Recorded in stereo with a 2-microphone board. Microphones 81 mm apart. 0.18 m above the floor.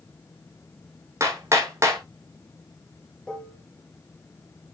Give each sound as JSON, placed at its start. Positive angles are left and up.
{"t": 1.2, "sound": "hammering", "side_deg": -35, "distance_m": 4.0}
{"t": 3.3, "sound": "dishes clattering", "side_deg": 10, "distance_m": 2.5}